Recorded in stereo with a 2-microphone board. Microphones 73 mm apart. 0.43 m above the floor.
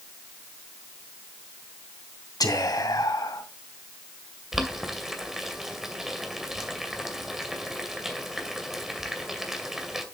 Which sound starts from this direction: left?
Whispering, at 2.4 s.